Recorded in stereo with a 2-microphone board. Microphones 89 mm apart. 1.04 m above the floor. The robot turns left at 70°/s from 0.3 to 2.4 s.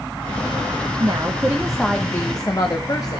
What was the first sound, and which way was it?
A woman speaking, 125° right.